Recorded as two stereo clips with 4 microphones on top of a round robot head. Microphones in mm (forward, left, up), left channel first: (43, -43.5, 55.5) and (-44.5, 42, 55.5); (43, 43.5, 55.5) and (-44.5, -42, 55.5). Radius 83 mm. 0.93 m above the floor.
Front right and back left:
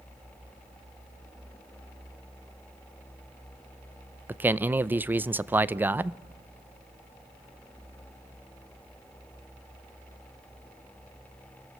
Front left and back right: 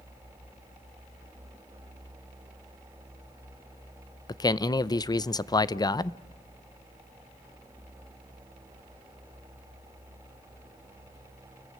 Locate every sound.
4.3 s a man speaking: 70° left, 0.6 m